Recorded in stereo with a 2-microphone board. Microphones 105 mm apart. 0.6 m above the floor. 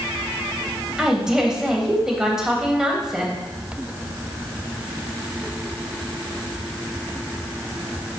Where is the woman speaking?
5° right (ahead or behind), 3 m.